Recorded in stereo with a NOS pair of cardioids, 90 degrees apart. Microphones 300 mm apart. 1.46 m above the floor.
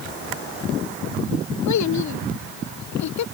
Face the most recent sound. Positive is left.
turn(degrees=65)